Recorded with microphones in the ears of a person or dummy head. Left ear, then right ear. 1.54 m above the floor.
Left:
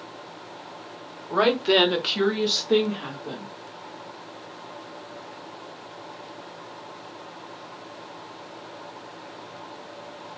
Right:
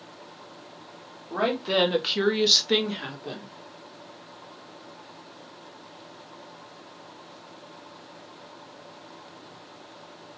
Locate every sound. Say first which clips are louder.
1.3 s a woman speaking: left 5 dB; 30° left (ahead or behind), 1.1 m; by 3.5 s 75° right (ahead or behind), 1.3 m